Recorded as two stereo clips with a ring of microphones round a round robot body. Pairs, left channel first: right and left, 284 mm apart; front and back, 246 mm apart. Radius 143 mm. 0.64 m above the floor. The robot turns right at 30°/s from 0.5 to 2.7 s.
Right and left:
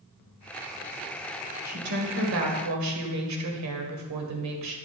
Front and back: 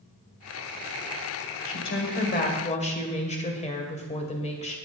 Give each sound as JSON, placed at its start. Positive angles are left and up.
{"t": 1.6, "sound": "a woman speaking", "azimuth_deg": 30, "distance_m": 2.5}